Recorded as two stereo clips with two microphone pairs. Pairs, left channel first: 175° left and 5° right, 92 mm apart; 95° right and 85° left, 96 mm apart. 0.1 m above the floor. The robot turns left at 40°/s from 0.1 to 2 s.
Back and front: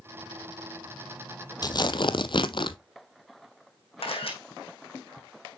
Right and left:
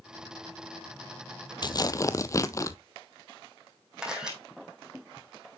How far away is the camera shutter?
About 2.5 m.